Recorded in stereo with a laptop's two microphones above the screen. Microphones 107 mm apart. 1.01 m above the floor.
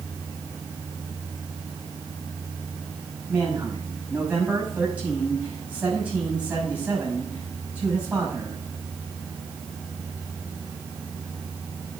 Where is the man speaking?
15° right (ahead or behind), 6 m.